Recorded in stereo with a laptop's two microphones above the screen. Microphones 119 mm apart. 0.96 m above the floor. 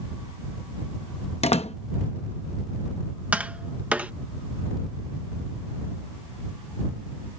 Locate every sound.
1.4 s a door slam: 60° left (ahead or behind)
3.3 s tapping: 10° right (ahead or behind)